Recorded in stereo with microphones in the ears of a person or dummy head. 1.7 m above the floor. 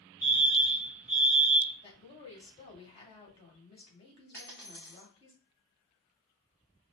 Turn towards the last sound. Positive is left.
turn(degrees=10)  # may be behind; listen again after turning